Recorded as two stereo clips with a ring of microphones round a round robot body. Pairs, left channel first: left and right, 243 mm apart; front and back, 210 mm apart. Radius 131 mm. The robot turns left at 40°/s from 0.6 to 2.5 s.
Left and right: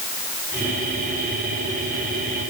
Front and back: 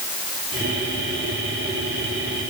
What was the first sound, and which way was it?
Only background noise.